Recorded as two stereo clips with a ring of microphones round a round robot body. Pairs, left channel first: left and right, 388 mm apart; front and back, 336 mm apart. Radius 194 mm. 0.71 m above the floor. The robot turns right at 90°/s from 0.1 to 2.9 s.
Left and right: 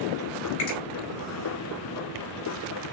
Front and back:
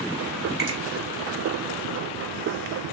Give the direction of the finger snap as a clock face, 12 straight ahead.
10 o'clock.